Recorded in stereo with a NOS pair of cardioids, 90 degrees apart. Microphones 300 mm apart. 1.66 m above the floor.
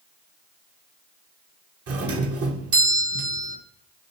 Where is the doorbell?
55° right, 2.5 m.